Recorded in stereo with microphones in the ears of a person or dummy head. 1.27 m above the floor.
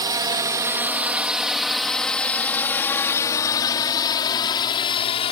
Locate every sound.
0.0 s a drone: 25° right (ahead or behind); by 5.3 s 25° left (ahead or behind)